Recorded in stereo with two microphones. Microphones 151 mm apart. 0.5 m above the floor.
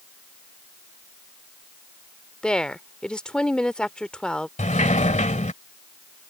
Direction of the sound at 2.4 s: 5° left (ahead or behind).